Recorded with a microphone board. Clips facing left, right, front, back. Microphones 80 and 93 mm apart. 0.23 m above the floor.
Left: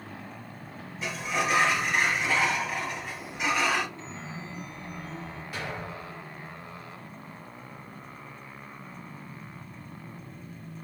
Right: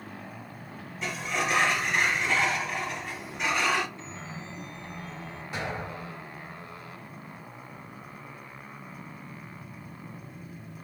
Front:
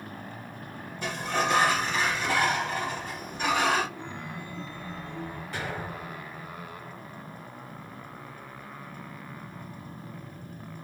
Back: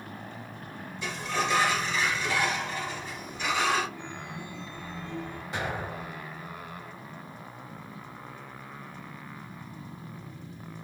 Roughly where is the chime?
Ahead left.